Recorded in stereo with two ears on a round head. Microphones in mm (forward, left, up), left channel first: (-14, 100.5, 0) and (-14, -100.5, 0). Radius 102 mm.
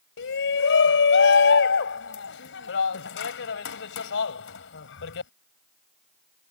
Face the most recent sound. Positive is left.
turn(degrees=65)  # may be behind; listen again after turning